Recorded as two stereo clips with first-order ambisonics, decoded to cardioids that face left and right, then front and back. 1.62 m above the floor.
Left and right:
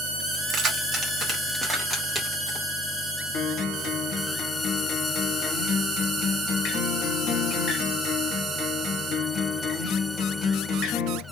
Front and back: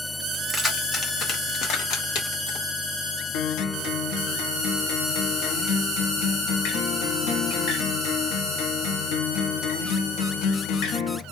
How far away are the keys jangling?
About 0.9 m.